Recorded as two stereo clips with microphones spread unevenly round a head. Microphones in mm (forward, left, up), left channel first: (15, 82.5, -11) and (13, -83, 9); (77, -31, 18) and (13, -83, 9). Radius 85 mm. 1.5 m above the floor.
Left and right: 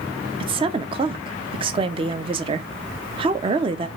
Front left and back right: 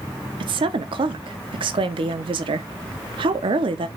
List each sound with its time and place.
0.4 s a woman speaking: 140° right, 0.6 m